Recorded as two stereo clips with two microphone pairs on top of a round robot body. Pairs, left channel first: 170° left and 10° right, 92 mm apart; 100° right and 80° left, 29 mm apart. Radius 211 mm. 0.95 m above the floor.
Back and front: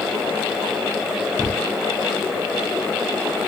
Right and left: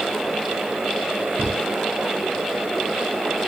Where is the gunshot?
75° left.